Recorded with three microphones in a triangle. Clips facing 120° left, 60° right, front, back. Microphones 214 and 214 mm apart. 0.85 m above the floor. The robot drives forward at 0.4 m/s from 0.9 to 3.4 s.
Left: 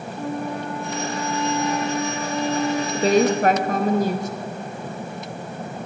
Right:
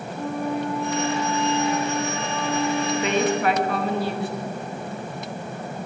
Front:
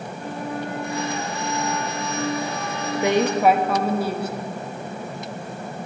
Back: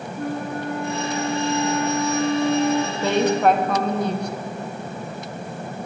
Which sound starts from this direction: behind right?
A flute, at 0.2 s.